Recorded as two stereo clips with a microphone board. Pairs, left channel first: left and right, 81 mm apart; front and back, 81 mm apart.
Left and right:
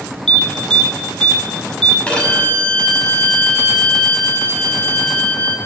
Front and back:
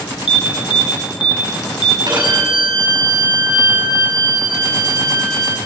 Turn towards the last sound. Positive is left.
turn(degrees=165)